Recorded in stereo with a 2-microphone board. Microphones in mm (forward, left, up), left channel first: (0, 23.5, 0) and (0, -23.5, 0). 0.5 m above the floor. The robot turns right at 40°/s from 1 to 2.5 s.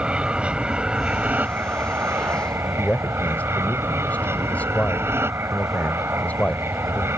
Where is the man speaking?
35° left (ahead or behind).